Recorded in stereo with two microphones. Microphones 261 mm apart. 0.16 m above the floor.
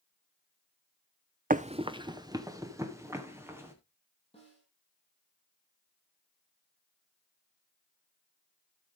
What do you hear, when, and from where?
1.5 s running footsteps: 35° right (ahead or behind), 0.5 m; by 3.7 s 10° right (ahead or behind), 3.5 m
4.3 s a snare drum: 20° left (ahead or behind), 7 m